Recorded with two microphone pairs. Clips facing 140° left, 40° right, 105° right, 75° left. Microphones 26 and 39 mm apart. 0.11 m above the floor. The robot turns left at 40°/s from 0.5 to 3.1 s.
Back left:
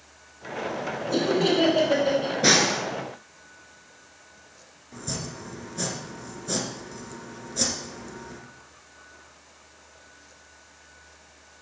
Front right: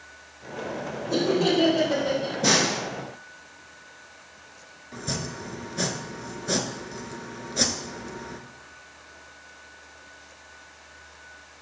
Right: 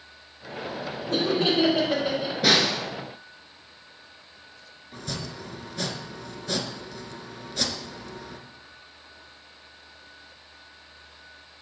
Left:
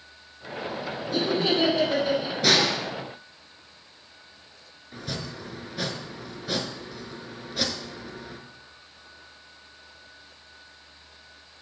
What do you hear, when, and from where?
1.1 s laughter: 125° right, 4.5 m; by 2.3 s 175° right, 4.5 m
2.4 s a snare drum: straight behind, 1.2 m; by 2.8 s 165° left, 1.2 m
4.9 s chopping: straight ahead, 0.8 m